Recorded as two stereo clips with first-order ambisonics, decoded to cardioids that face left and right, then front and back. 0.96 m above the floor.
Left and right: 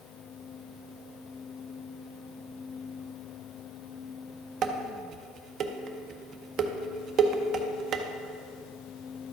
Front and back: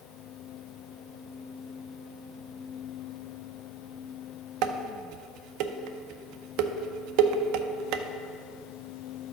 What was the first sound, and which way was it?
Dishes clattering, 150° right.